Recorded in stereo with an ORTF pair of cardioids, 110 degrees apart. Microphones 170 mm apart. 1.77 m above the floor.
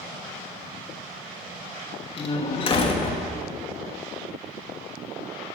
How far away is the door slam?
About 2.5 m.